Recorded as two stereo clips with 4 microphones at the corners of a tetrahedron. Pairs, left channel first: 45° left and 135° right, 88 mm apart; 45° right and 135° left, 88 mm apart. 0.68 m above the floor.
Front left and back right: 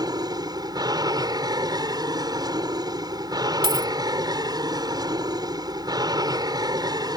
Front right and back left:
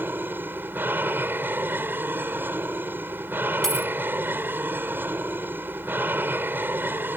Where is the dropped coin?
130° right.